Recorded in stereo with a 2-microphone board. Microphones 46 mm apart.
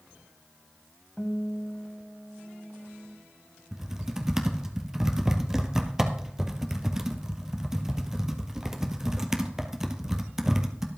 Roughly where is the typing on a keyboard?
Centre.